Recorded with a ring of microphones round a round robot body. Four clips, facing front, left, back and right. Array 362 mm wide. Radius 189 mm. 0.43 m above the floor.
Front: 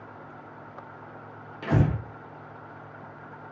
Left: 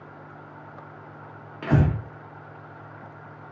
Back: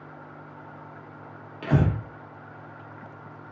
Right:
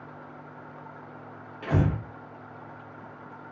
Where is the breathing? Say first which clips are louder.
Left 4 dB, back 1 dB; 100° left, 1.2 m.